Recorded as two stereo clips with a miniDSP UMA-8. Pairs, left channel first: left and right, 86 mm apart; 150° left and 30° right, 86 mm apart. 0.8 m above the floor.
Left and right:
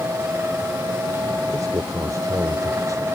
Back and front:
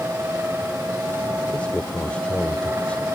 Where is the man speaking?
135° right.